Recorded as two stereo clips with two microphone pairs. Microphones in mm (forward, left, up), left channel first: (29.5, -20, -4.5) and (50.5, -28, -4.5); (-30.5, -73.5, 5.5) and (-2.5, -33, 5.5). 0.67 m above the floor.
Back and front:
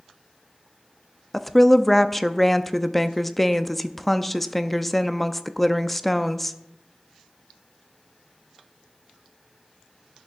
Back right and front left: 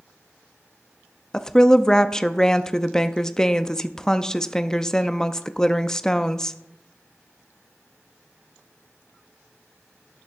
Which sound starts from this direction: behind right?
A woman speaking, at 1.3 s.